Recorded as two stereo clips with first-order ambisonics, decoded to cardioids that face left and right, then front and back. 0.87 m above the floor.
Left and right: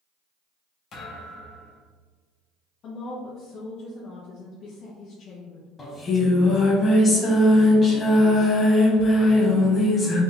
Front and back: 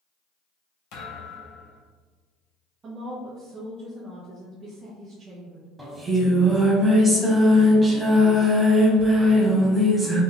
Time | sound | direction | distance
0.9 | a thud | 30° left | 1.3 m
2.8 | a woman speaking | 125° left | 0.7 m
5.8 | singing | 115° left | 0.7 m